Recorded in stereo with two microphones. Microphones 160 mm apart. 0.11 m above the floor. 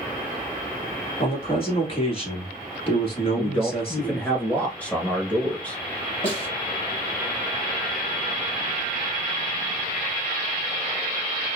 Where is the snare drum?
35° left (ahead or behind), 2 m.